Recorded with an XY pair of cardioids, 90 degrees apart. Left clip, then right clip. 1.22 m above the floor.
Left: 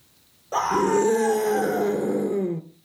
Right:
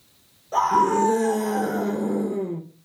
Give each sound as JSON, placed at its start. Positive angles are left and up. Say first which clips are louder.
{"t": 0.5, "sound": "a scream", "louder": "right 2 dB", "azimuth_deg": 40, "distance_m": 3.5}